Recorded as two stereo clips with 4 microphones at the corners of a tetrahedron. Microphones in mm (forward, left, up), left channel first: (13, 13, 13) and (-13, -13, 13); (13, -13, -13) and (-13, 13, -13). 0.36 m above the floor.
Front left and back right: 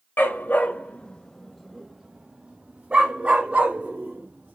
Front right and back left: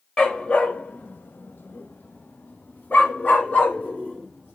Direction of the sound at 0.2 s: 25° left.